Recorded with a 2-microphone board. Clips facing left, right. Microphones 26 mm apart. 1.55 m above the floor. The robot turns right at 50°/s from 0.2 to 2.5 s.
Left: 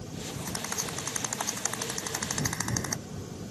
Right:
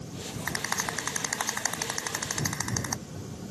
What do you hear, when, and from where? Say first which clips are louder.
0.5 s a rattle: right 6 dB; 65° right (ahead or behind); by 3.0 s 5° right (ahead or behind)